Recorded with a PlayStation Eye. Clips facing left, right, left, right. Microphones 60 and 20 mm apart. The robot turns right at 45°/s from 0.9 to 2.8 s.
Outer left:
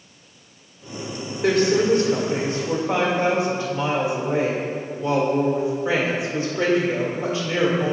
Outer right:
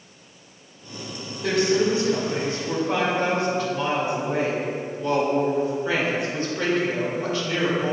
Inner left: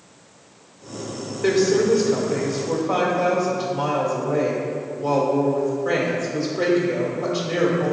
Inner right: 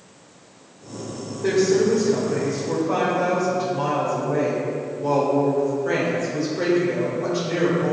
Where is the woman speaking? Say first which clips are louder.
Outer left 3 dB, inner left 1 dB; 105° left, 1.8 m; by 7.9 s 165° left, 1.8 m.